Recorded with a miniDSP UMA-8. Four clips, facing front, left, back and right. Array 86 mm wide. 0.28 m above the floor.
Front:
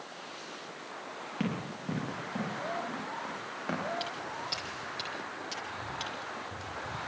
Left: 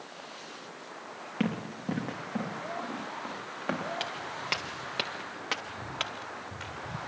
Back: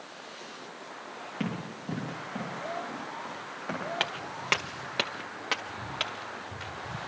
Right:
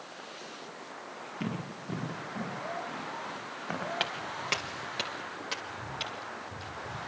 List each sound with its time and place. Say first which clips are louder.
1.4 s running footsteps: left 6 dB, even; 85° left, 7 m; by 3.9 s 80° left, 10.5 m
4.0 s footsteps: right 1 dB, back 2 dB; 160° right, 1.5 m; by 7.0 s 120° left, 3 m